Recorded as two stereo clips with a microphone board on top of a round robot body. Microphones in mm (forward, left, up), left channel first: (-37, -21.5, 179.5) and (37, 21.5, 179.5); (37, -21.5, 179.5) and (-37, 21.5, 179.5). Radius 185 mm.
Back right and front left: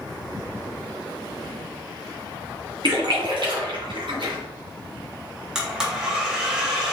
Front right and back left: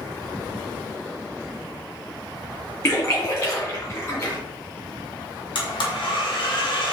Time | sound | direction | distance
2.8 | a splash | 25° left | 2 m
5.5 | a blender | 50° right | 1.1 m